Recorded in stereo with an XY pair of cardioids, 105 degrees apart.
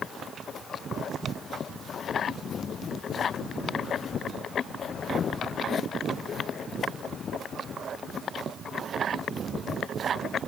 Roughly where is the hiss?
No hiss in this recording.